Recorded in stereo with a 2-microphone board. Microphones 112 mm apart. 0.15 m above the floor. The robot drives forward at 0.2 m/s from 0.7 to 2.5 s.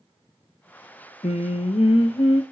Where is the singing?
80° left, 0.6 m; by 2.4 s 60° left (ahead or behind), 0.7 m.